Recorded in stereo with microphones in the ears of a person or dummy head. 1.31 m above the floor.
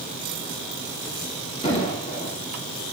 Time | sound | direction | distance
1.6 | an explosion | 35° left (ahead or behind) | 3.5 m